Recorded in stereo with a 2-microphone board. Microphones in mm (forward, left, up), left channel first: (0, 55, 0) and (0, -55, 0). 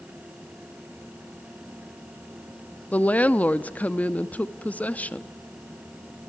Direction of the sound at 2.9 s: 15° left (ahead or behind).